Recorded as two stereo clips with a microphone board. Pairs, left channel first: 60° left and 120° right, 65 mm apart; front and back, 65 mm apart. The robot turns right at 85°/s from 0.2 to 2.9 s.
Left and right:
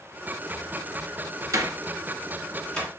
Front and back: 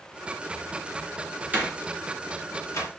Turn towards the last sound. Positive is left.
turn(degrees=-5)